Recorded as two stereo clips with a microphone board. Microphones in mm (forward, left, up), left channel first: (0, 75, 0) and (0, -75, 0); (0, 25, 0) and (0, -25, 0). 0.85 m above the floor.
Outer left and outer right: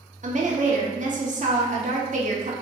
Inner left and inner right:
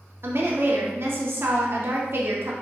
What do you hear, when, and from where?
0.2 s a woman speaking: 55° right (ahead or behind), 0.6 m